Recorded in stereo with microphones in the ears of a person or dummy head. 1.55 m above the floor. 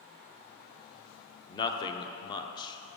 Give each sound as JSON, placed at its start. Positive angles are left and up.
{"t": 1.5, "sound": "a man speaking", "side_deg": 25, "distance_m": 0.6}